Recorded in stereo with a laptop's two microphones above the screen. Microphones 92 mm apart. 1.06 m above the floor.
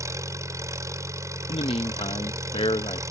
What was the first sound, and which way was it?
An engine running, 35° right (ahead or behind).